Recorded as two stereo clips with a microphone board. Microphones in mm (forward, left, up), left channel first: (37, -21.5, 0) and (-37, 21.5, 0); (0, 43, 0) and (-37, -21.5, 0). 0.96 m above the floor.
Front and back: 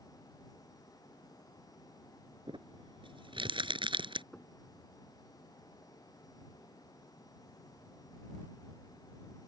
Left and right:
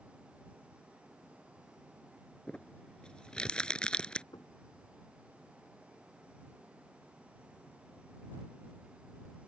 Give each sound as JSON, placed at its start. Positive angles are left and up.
{"t": 2.5, "sound": "crumpling", "azimuth_deg": 140}
{"t": 4.3, "sound": "knocking", "azimuth_deg": 50}